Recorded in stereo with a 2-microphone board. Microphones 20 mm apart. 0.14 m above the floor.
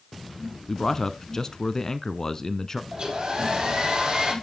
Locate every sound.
0.7 s a man speaking: 25° left (ahead or behind), 1.2 m
2.9 s a hair dryer: 45° right (ahead or behind), 4 m